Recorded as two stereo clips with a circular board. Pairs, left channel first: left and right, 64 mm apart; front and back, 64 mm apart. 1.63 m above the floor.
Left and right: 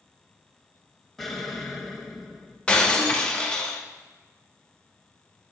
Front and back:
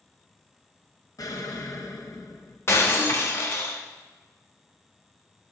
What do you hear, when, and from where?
1.2 s an explosion: 5° left, 0.9 m
2.7 s breaking glass: 25° left, 1.0 m